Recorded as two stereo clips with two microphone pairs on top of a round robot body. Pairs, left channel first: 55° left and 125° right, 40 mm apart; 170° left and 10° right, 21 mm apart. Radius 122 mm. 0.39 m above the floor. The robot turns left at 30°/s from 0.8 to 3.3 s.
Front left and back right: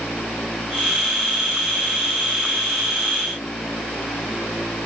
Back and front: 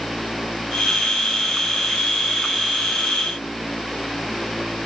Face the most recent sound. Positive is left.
No sound to turn to.